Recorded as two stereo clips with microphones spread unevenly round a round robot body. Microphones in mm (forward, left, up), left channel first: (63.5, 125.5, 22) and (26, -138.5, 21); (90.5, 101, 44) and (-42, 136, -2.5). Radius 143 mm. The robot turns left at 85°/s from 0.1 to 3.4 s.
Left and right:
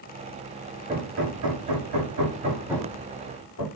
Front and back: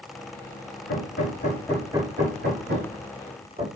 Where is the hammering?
25° right, 5.5 m; by 3.6 s 120° left, 5.5 m.